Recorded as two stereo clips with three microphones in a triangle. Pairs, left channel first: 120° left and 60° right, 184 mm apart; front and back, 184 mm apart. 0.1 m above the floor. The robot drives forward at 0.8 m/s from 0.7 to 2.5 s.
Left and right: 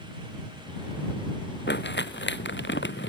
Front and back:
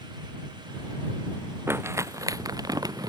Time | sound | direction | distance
1.7 | crumpling | 105° left | ?